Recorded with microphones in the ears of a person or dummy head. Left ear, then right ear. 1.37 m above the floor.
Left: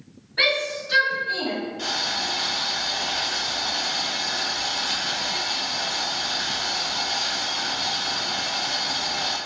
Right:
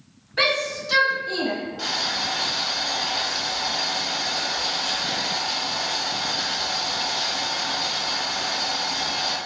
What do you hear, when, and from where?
0.4 s a shout: 65° right (ahead or behind), 2.0 m; by 1.6 s 80° right, 1.6 m
1.8 s boiling: 55° right (ahead or behind), 1.8 m